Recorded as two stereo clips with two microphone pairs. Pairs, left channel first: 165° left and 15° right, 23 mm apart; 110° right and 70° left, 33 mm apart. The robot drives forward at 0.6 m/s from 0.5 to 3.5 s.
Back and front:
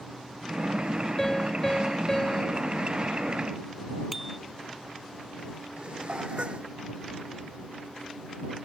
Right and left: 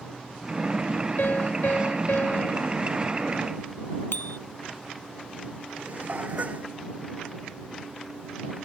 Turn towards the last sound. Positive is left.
turn(degrees=25)